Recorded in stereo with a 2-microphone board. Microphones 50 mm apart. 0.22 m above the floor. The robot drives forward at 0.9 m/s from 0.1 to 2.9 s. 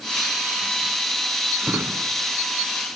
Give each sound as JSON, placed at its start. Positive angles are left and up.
{"t": 1.6, "sound": "a drawer", "side_deg": -45, "distance_m": 1.3}